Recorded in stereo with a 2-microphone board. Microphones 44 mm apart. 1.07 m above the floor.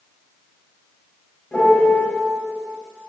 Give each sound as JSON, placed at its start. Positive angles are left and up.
{"t": 1.5, "sound": "a piano", "side_deg": 30, "distance_m": 1.0}